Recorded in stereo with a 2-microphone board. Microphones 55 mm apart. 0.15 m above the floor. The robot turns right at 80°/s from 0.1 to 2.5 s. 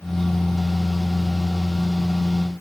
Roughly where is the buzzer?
No buzzer in this recording.